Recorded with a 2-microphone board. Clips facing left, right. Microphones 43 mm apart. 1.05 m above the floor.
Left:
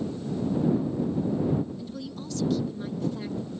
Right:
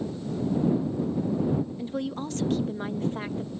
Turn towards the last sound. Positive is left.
turn(degrees=-45)  # may be behind; listen again after turning